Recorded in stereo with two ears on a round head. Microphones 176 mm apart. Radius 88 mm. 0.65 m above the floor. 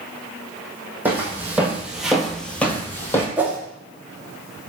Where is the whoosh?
10° right (ahead or behind), 0.6 m.